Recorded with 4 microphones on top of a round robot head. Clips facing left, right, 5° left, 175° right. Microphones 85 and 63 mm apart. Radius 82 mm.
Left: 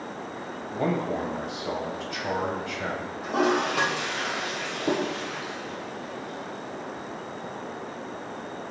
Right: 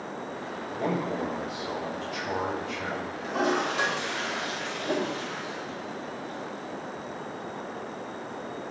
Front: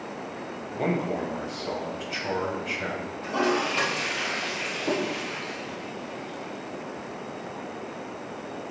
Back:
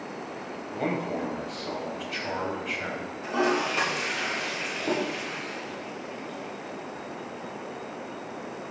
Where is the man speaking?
90° left, 4 m.